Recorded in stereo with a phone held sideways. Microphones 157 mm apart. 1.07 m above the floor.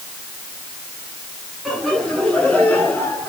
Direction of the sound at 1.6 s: Centre (ahead or behind).